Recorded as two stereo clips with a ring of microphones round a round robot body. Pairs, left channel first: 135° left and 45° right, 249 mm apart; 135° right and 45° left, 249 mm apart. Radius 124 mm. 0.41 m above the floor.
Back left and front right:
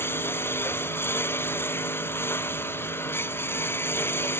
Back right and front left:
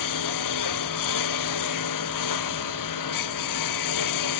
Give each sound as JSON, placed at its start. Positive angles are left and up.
{"t": 0.0, "sound": "a lawn mower", "azimuth_deg": -145}